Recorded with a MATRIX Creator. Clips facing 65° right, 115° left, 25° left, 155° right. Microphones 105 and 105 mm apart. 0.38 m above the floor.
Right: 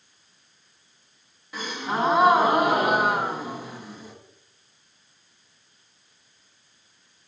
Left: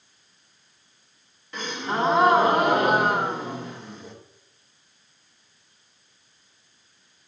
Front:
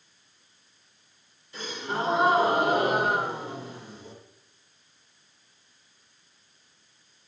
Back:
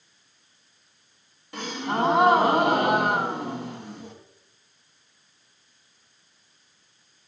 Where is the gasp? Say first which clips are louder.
Even, back 4 dB; 150° right, 1.3 m.